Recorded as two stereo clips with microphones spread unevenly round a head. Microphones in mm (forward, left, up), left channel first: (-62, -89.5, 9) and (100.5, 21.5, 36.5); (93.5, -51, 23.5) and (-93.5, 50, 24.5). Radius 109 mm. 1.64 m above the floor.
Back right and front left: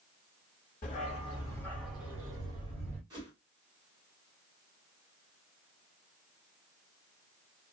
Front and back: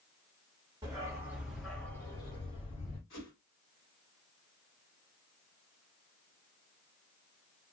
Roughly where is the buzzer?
I don't hear a buzzer.